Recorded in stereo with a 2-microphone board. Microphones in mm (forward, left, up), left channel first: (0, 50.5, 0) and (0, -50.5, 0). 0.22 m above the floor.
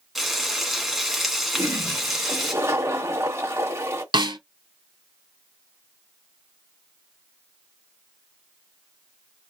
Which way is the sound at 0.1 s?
Centre (ahead or behind).